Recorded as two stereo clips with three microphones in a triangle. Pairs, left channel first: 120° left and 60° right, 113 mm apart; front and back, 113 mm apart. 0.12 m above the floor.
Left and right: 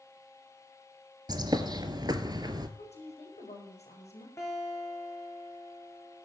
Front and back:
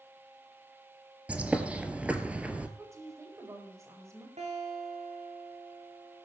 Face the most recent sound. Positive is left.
turn(degrees=-175)